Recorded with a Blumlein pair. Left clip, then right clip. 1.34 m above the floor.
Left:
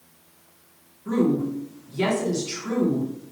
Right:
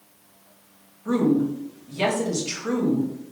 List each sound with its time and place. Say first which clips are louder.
1.1 s a woman speaking: right 1 dB; 25° right, 1.5 m